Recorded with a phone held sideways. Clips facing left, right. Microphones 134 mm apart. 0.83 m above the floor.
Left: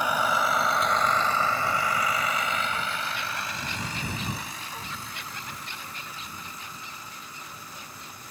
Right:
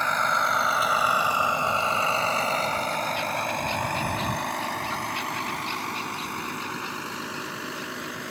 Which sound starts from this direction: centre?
A vehicle, at 0.0 s.